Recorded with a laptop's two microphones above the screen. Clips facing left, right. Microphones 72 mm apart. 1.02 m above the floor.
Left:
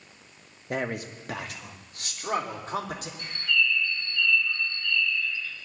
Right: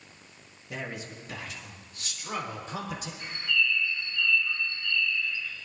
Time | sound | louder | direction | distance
0.7 | a man speaking | left 7 dB | 50° left (ahead or behind) | 1.0 m
3.2 | a bird | left 2 dB | 10° right (ahead or behind) | 6 m